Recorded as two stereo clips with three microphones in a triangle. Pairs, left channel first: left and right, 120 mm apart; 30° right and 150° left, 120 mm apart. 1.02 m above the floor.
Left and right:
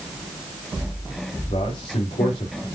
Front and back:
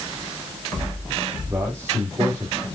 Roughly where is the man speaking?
Left.